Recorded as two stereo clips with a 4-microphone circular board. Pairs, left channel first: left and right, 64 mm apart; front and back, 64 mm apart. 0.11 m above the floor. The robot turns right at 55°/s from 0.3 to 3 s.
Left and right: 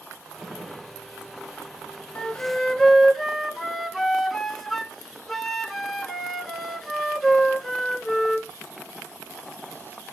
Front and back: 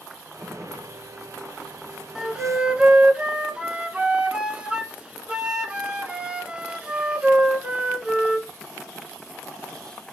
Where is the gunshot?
85° left, 7.5 m; by 0.9 s 115° left, 7.5 m.